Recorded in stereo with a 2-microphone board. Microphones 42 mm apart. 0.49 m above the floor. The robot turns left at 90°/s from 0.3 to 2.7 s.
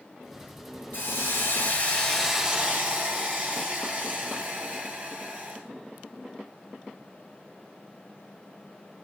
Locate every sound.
0.9 s a hiss: 125° left, 6.5 m; by 5.6 s 35° right, 6.5 m